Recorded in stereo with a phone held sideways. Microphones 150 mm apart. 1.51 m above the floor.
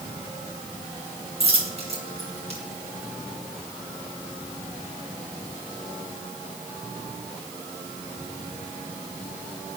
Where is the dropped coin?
45° right (ahead or behind), 4 m.